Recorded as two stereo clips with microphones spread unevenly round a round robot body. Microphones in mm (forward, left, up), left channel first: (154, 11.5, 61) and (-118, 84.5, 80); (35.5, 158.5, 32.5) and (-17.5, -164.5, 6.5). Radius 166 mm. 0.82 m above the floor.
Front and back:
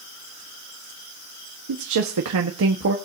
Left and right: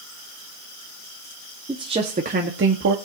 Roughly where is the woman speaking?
Behind.